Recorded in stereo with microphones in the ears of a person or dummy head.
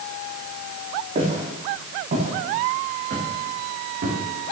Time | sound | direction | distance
1.1 | footsteps | 45° right (ahead or behind) | 7 m